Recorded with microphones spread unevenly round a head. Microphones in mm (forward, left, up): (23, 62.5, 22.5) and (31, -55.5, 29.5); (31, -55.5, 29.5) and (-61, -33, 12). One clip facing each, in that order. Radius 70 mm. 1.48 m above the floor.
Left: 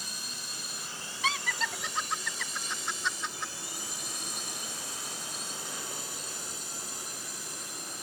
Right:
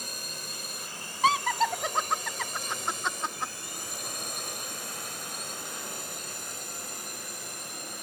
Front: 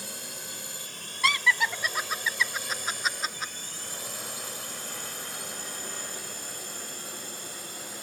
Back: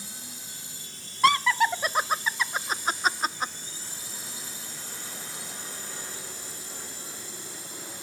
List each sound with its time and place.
0.0 s a drone: 45° right; by 8.0 s 50° right
1.2 s laughter: 145° right